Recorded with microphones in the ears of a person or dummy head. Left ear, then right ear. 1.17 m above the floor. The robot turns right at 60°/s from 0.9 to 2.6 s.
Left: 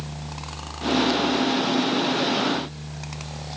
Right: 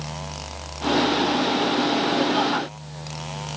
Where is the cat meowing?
I don't hear a cat meowing.